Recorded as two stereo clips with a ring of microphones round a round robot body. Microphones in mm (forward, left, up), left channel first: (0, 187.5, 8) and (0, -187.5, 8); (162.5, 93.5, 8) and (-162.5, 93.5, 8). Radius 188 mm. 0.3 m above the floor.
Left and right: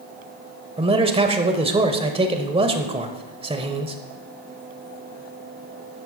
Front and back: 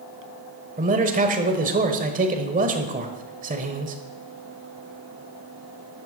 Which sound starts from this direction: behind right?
A man speaking, at 0.8 s.